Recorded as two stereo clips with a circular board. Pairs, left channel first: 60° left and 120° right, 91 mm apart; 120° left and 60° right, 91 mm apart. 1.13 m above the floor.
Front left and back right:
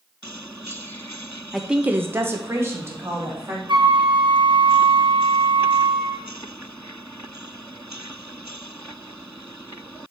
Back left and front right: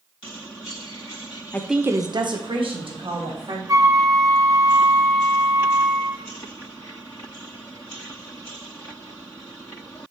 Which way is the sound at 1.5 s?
140° left.